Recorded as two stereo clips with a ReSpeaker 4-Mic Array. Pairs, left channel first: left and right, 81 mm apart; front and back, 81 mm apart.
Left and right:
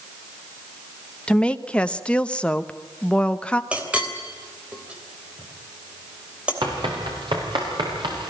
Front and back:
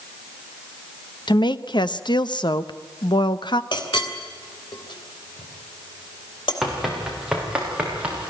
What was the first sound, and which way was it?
A woman speaking, 15° left.